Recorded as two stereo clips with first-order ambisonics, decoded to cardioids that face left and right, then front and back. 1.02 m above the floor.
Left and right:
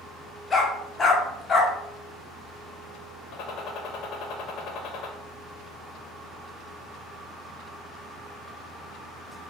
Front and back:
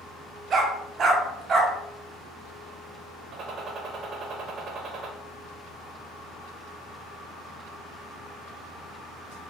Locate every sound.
0.5 s a dog barking: 150° left, 0.6 m
3.3 s a gunshot: 125° left, 0.6 m